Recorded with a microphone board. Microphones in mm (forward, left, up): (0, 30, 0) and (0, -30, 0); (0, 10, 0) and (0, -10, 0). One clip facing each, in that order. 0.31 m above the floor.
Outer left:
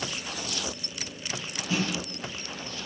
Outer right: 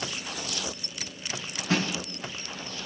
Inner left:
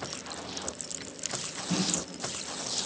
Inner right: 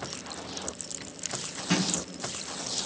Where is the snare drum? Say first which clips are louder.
Outer right 2 dB, inner right 3 dB; 65° right (ahead or behind), 5 m.